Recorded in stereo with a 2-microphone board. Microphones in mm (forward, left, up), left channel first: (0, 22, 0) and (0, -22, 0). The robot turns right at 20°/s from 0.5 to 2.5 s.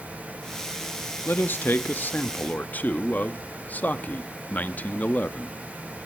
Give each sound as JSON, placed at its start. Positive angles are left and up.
{"t": 1.2, "sound": "a man speaking", "side_deg": 50, "distance_m": 0.8}